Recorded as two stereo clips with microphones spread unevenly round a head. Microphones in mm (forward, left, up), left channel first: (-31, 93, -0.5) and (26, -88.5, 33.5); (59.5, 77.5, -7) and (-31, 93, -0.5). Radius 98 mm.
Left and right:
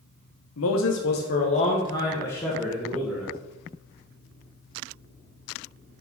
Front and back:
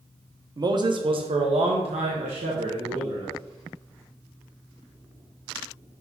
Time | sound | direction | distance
0.6 | a man speaking | 125° left | 1.0 m